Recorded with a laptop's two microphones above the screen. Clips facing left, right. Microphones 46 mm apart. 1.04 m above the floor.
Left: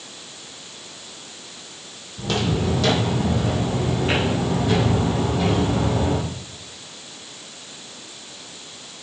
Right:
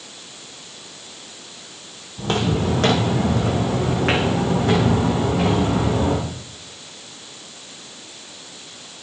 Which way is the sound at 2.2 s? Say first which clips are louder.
Right 2 dB; 35° right (ahead or behind).